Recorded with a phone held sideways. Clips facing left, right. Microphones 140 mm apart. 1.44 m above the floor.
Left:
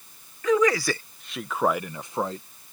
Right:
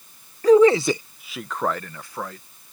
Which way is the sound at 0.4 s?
40° right (ahead or behind).